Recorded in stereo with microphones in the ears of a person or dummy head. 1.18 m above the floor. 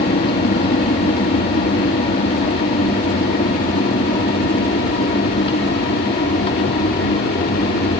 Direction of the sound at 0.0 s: 35° left (ahead or behind).